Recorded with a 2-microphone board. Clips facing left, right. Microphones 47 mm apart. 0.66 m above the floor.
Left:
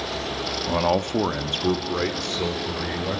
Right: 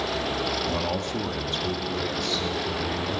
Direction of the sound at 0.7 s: 20° left (ahead or behind).